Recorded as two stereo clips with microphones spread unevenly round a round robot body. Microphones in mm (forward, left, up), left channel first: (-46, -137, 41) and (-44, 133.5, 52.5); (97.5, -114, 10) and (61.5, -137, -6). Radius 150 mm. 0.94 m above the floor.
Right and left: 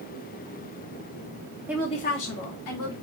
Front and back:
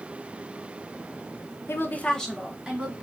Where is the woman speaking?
10° left, 0.5 m; by 2.9 s 85° right, 1.2 m.